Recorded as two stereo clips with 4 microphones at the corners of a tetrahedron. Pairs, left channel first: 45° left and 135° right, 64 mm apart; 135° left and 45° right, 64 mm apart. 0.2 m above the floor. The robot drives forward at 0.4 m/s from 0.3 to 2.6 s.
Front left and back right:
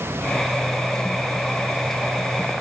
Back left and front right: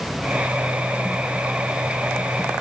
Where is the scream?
I don't hear a scream.